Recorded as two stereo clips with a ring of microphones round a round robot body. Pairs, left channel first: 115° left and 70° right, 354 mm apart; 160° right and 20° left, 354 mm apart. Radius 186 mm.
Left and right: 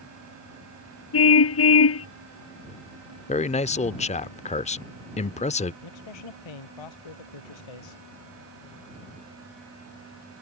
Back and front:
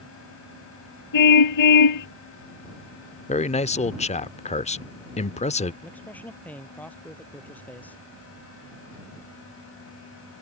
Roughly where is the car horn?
Behind.